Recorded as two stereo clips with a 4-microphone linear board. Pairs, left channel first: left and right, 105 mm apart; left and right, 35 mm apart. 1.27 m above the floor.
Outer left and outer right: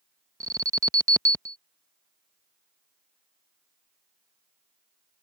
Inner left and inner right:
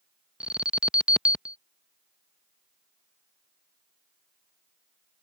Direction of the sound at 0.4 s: 30° right (ahead or behind).